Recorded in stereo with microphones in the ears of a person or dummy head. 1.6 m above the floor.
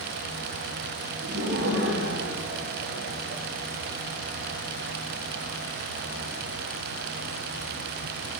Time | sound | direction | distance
1.2 | laughter | 80° right | 6 m